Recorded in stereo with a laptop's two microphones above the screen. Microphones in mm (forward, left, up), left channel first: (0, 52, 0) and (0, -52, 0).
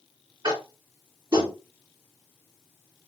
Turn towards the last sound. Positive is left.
turn(degrees=-50)  # may be behind; listen again after turning